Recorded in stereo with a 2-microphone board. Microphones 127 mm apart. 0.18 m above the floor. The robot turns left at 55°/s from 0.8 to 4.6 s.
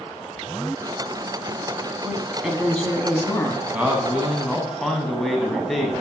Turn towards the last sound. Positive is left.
turn(degrees=0)  # may be behind; listen again after turning